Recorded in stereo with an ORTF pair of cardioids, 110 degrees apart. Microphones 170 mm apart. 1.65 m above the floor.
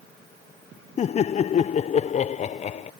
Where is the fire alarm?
No fire alarm in this recording.